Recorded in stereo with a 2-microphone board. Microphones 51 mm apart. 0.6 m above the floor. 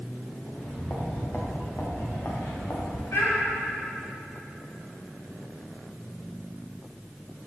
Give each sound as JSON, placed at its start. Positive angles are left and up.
{"t": 0.5, "sound": "footsteps", "side_deg": 35, "distance_m": 3.5}
{"t": 3.1, "sound": "a child speaking", "side_deg": 60, "distance_m": 2.5}